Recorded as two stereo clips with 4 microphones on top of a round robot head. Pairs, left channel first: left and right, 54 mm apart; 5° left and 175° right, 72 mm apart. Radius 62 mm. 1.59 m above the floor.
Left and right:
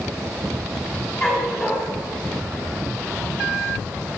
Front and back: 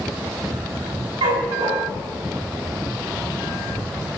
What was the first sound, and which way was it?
A dog barking, 170° left.